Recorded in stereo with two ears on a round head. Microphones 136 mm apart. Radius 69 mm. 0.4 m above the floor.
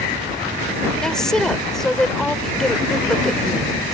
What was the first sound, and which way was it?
A woman speaking, 5° left (ahead or behind).